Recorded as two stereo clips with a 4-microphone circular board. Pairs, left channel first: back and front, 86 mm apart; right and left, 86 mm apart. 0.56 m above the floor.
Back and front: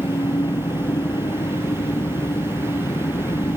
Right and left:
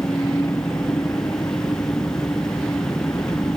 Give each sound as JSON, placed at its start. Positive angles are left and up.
{"t": 0.0, "sound": "an engine running", "azimuth_deg": -145}